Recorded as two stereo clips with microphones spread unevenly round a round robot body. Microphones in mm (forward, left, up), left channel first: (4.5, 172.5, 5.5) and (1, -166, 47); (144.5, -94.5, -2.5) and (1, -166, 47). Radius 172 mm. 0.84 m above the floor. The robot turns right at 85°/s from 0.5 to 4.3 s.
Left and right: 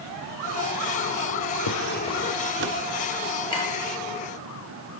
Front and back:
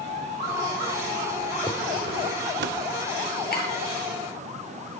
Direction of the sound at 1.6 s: 125° left.